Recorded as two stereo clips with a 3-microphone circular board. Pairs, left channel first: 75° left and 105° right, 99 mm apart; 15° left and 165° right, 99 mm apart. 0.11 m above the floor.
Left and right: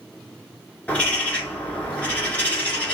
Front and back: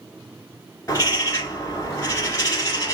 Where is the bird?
15° left, 1.2 m.